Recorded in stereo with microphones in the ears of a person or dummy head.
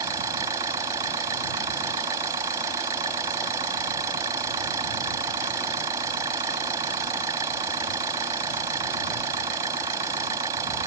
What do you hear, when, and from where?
0.0 s an engine running: 15° right (ahead or behind)